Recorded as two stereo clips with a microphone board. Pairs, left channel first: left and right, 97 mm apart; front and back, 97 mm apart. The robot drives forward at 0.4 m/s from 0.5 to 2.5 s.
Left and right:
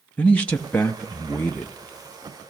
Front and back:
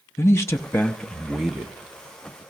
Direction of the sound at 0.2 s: 30° left.